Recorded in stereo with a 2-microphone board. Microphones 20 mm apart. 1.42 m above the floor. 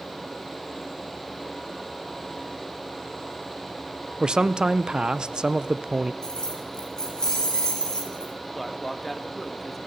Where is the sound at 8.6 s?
5° left (ahead or behind), 1.7 m.